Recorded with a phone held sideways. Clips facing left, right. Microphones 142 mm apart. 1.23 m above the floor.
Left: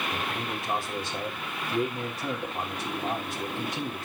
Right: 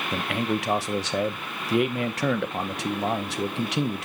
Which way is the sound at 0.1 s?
80° right.